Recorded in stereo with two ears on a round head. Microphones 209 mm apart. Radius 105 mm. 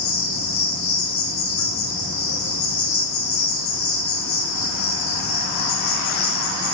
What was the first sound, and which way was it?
An insect, 65° left (ahead or behind).